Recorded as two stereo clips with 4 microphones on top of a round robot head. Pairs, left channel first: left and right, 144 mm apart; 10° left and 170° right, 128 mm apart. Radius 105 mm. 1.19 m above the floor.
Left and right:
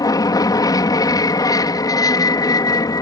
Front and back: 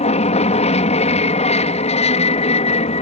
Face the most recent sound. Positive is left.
turn(degrees=30)